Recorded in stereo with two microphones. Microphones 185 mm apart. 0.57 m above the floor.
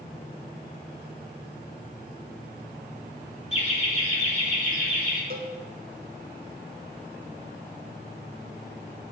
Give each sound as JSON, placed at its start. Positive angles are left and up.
{"t": 3.5, "sound": "laughter", "side_deg": 35, "distance_m": 1.6}
{"t": 5.3, "sound": "a cowbell", "side_deg": -55, "distance_m": 1.0}